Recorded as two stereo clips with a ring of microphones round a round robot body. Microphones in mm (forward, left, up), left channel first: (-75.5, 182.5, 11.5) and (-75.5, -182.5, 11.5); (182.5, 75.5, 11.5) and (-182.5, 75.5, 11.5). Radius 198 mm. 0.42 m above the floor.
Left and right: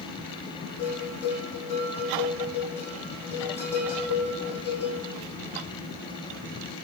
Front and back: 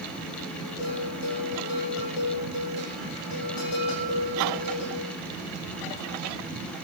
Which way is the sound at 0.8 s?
5° left.